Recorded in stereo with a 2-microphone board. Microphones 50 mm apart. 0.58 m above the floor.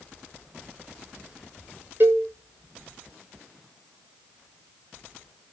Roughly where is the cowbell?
Right.